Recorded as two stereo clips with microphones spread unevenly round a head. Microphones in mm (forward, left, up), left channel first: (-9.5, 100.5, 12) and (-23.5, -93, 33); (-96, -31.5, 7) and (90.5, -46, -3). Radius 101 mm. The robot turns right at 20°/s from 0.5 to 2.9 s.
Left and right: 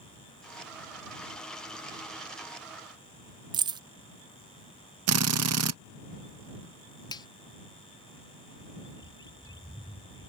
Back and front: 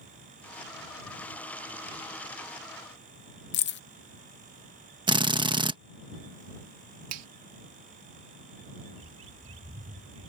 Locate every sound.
3.5 s keys jangling: 160° right
5.1 s a drill: 75° right
7.1 s a finger snap: 15° left
8.9 s a bird: 20° left